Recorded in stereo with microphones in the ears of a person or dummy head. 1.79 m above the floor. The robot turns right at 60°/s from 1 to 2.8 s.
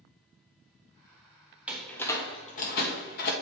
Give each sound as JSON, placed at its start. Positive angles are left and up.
{"t": 1.7, "sound": "a door slam", "side_deg": -5, "distance_m": 1.4}